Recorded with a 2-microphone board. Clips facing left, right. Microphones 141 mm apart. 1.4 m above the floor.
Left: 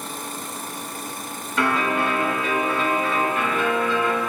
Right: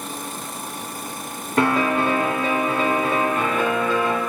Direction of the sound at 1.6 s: 60° right (ahead or behind).